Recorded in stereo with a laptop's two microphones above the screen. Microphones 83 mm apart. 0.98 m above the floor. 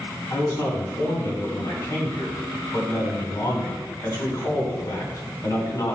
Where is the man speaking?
50° left (ahead or behind), 3 m.